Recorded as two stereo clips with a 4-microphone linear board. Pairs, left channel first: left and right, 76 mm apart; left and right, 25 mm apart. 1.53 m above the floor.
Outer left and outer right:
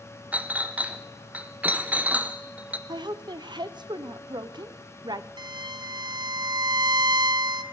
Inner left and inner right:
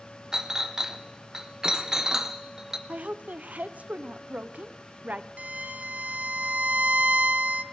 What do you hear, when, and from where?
0.3 s a clink: 20° right (ahead or behind), 0.6 m
2.9 s a woman speaking: 70° right (ahead or behind), 0.6 m
5.4 s a violin: 65° right (ahead or behind), 0.6 m